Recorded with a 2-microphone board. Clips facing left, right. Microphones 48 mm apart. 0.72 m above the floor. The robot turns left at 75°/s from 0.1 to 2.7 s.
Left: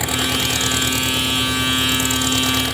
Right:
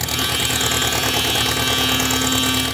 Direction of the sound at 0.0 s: 15° left.